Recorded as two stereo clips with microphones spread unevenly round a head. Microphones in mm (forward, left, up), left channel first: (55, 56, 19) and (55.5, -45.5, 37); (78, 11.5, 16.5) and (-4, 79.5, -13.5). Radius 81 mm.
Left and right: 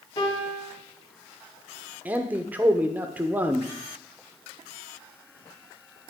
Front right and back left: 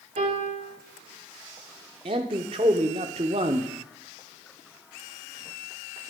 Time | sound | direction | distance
0.2 | a piano | 145° left | 2.5 m
2.0 | a man speaking | 170° right | 0.6 m